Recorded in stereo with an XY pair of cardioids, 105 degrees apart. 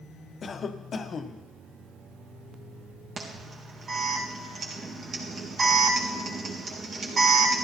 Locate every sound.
0.4 s a cough: 45° left, 1.1 m
3.2 s an alarm: 45° right, 3.5 m